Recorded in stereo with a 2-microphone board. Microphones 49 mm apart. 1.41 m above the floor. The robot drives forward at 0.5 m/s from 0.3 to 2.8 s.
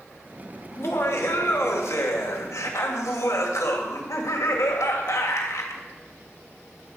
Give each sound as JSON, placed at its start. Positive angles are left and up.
{"t": 0.7, "sound": "laughter", "side_deg": 60, "distance_m": 2.5}